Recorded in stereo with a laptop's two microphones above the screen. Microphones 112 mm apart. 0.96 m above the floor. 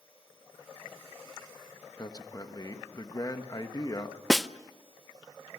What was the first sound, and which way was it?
A man speaking, 35° left (ahead or behind).